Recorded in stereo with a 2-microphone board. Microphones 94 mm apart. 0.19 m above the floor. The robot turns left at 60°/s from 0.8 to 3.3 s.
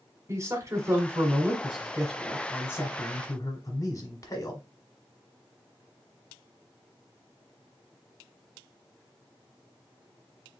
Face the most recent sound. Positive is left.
turn(degrees=95)